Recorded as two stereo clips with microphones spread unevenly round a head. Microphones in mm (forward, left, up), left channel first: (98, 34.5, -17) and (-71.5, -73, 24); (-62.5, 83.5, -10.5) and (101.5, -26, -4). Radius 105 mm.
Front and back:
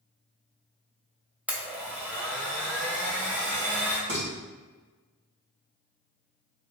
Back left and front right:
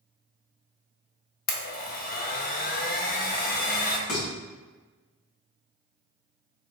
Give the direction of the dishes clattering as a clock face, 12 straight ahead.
6 o'clock.